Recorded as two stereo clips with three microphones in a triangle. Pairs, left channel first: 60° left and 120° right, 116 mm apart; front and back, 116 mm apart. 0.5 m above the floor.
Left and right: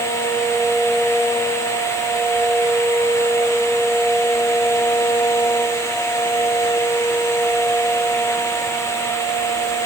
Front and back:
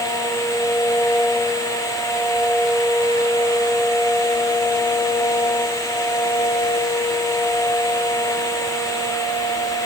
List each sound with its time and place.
Only background noise.